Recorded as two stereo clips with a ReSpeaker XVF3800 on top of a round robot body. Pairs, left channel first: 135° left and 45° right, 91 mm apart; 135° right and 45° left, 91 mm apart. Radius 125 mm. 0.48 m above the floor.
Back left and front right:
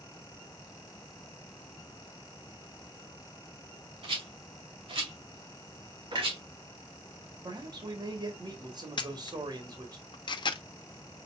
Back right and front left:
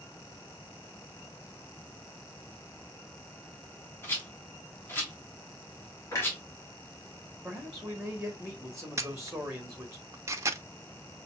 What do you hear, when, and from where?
4.0 s a rattle: 65° right, 2.5 m
6.1 s a clunk: 75° right, 3 m
7.4 s a man speaking: 40° right, 2.0 m
9.0 s a camera shutter: 105° left, 0.8 m